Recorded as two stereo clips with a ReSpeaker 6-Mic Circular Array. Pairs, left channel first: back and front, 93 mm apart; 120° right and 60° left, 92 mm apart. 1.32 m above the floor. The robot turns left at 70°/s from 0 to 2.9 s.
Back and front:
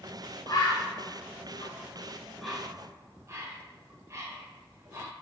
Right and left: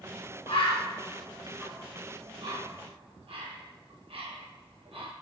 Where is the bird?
130° right, 1.0 m; by 5.1 s 55° left, 1.0 m.